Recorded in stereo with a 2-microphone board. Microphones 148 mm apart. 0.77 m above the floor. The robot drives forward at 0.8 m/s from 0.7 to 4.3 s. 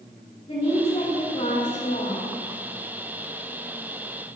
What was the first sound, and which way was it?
A woman speaking, 45° left (ahead or behind).